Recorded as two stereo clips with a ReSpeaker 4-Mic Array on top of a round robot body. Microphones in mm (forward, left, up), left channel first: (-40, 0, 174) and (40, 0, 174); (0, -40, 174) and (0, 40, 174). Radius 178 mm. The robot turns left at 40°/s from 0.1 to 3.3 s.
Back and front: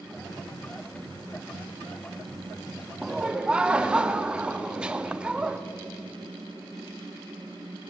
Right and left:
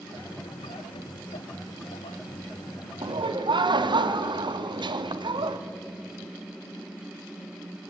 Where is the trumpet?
No trumpet in this recording.